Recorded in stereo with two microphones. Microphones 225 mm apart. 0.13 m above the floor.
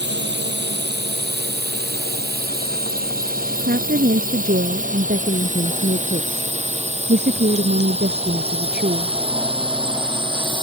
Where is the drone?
50° right (ahead or behind); by 10.6 s 20° right (ahead or behind).